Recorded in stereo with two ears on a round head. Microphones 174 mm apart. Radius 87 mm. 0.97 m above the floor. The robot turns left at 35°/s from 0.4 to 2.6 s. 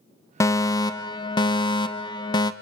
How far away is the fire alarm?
About 1.2 m.